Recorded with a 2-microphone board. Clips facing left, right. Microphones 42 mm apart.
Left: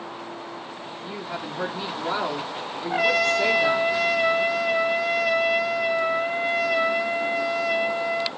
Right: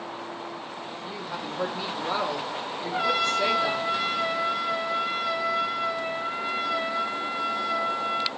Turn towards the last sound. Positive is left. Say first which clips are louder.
# left 4 dB
turn(degrees=70)  # may be behind; listen again after turning